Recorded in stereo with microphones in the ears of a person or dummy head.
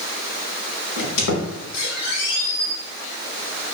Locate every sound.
1.0 s a squeak: 65° left (ahead or behind), 1.1 m